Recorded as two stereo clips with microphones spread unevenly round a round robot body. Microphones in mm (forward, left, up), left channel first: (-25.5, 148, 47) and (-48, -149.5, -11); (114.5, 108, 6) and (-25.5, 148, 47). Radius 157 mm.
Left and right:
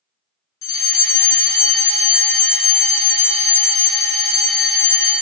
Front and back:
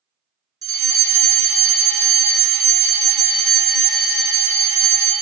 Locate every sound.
0.6 s a fire alarm: 85° left, 2 m